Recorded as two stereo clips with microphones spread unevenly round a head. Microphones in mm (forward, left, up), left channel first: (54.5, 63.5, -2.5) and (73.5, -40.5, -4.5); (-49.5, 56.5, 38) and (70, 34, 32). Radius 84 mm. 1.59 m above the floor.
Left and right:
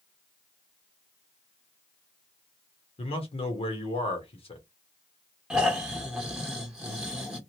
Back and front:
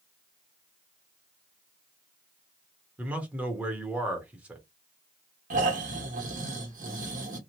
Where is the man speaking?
70° left, 1.1 m.